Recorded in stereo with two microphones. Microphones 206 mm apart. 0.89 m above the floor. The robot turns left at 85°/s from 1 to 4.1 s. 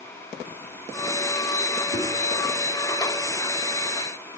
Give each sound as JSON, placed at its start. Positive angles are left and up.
{"t": 1.9, "sound": "a whoosh", "side_deg": 50, "distance_m": 1.9}